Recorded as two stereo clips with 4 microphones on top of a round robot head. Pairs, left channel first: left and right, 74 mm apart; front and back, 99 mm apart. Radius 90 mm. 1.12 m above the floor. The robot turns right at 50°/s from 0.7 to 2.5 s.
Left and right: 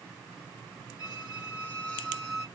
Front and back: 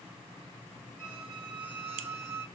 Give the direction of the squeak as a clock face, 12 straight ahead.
8 o'clock.